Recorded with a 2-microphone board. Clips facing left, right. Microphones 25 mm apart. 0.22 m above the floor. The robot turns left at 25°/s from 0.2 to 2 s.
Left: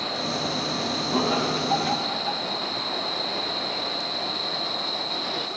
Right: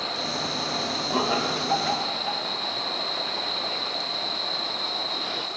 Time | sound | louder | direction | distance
1.1 | laughter | left 1 dB | 10° right (ahead or behind) | 1.6 m